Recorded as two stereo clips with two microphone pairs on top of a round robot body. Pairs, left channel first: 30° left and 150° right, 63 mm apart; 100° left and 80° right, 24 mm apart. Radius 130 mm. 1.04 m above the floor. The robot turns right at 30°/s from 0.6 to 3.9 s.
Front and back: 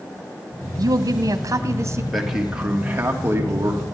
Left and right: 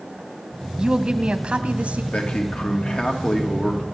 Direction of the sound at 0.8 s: 140° right.